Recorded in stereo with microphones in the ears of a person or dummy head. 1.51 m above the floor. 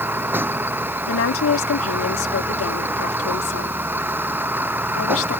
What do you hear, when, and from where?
0.0 s a vehicle: 10° right (ahead or behind)
1.1 s a woman speaking: 90° left